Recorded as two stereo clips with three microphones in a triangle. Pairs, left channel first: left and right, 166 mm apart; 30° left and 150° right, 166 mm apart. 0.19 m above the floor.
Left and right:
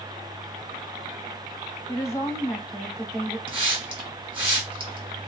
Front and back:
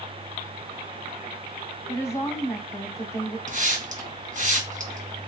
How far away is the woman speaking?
About 1.0 m.